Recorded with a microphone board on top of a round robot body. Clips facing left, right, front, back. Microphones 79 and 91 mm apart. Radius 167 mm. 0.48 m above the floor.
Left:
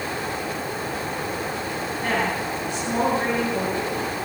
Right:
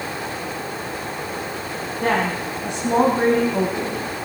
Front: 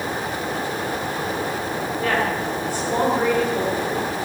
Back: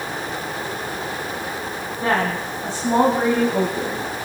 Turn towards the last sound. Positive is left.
turn(degrees=-115)